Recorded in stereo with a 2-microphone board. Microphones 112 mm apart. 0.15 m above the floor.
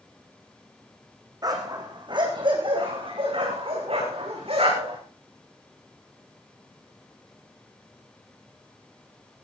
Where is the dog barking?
35° right (ahead or behind), 4 m; by 5.0 s 65° right (ahead or behind), 7.5 m.